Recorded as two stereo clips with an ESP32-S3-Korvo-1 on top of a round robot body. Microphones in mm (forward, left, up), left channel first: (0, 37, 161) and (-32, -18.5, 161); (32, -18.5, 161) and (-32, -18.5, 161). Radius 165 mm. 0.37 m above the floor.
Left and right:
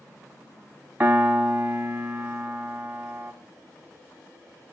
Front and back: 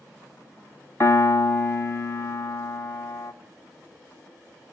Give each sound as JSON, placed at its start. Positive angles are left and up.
{"t": 1.0, "sound": "a piano", "azimuth_deg": -50, "distance_m": 0.9}